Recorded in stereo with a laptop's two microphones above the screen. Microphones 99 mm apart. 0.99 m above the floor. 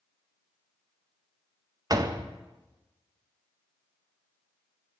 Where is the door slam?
40° right (ahead or behind), 0.5 m.